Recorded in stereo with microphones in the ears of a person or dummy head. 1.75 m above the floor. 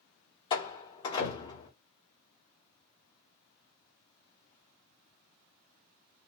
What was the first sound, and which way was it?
A door slam, 30° left (ahead or behind).